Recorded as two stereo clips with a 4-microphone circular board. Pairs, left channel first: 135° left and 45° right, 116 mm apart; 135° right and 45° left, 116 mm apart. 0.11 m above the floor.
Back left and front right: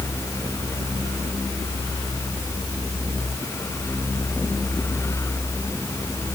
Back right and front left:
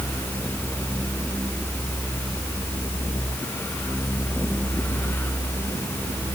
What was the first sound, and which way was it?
Only background noise.